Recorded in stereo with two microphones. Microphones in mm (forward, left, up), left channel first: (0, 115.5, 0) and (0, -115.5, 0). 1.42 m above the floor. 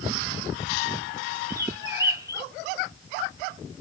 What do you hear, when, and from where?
1.5 s a bird: 15° right (ahead or behind), 0.6 m